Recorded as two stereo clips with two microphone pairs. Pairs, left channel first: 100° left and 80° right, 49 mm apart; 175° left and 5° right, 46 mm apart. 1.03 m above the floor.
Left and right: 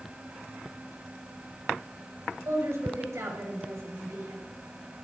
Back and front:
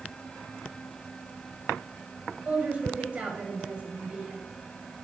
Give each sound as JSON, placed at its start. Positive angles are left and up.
{"t": 2.5, "sound": "a woman speaking", "azimuth_deg": -70, "distance_m": 5.0}